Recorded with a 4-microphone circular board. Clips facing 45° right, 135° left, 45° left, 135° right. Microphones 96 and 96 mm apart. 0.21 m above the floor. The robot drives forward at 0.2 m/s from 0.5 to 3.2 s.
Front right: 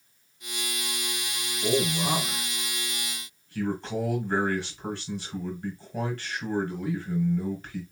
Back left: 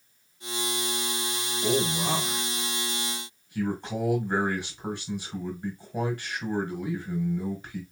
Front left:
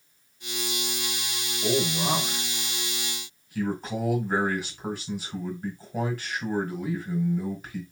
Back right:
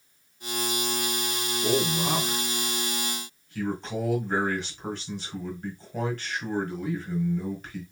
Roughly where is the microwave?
I don't hear a microwave.